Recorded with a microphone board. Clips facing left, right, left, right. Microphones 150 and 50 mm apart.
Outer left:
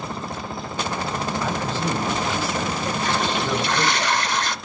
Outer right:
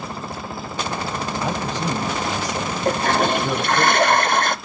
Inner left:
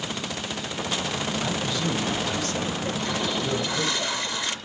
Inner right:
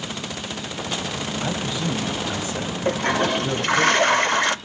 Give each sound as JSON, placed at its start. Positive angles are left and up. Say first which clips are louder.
{"t": 1.4, "sound": "a man speaking", "louder": "outer right 1 dB, inner right 1 dB", "side_deg": -15, "distance_m": 2.0}
{"t": 2.9, "sound": "a toilet flushing", "louder": "outer right 9 dB, inner right 6 dB", "side_deg": -55, "distance_m": 0.5}